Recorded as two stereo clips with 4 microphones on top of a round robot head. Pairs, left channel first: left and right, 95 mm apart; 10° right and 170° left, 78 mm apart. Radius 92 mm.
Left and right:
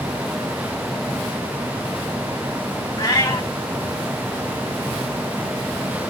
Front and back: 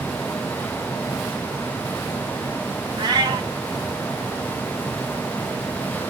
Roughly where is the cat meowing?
Behind left.